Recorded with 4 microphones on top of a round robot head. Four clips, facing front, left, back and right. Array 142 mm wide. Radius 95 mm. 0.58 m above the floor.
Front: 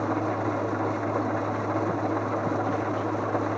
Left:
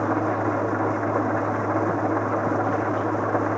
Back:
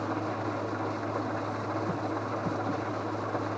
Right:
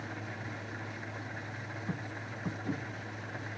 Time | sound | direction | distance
0.0 | an engine running | 70° left | ?